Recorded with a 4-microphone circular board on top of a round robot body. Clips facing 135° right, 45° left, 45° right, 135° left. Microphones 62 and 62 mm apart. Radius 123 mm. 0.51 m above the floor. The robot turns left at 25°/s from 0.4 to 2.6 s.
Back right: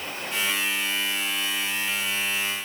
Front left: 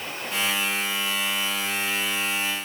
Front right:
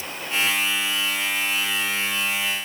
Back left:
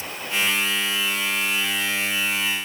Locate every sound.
Only background noise.